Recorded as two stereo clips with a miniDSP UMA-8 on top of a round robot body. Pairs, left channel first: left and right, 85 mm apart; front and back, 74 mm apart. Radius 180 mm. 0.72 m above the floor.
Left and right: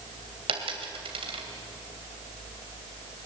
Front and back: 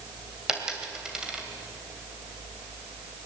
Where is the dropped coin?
100° right, 2.5 m.